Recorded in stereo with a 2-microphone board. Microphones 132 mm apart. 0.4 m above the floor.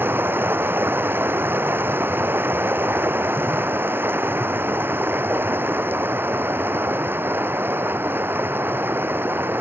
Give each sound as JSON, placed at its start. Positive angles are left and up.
{"t": 0.0, "sound": "running water", "side_deg": -15}